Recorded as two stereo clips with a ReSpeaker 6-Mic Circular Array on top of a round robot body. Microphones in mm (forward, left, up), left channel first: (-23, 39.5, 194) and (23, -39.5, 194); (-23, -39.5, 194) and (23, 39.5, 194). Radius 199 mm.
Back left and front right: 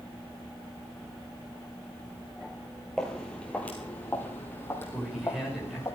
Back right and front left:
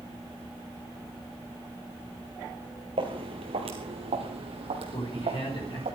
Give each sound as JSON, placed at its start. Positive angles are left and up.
{"t": 3.0, "sound": "footsteps", "azimuth_deg": 35, "distance_m": 1.3}
{"t": 4.9, "sound": "a man speaking", "azimuth_deg": -150, "distance_m": 5.5}